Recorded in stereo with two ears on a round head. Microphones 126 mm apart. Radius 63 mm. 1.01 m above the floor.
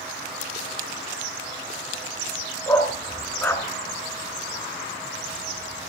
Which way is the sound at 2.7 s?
15° left (ahead or behind).